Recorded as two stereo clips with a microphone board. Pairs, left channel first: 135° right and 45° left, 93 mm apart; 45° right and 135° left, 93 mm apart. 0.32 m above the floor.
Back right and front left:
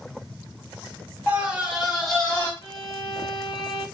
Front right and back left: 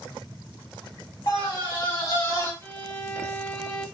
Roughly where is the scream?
Ahead right.